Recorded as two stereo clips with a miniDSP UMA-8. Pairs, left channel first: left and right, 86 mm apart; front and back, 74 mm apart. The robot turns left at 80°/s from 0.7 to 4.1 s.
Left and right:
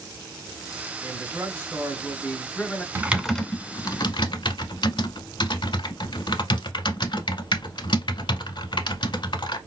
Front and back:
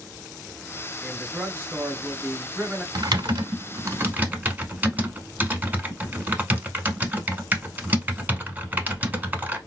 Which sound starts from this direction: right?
A man speaking, at 1.0 s.